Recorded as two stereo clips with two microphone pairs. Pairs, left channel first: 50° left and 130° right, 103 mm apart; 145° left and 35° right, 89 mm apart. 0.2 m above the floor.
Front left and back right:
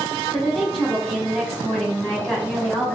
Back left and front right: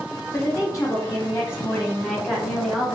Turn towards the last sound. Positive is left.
turn(degrees=20)